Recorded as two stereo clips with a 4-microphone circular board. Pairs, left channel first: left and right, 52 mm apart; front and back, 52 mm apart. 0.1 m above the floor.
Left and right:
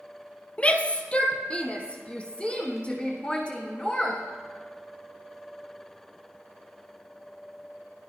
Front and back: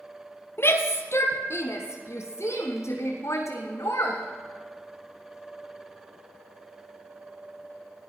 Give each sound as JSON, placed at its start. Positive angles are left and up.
{"t": 0.6, "sound": "a shout", "azimuth_deg": 30, "distance_m": 2.5}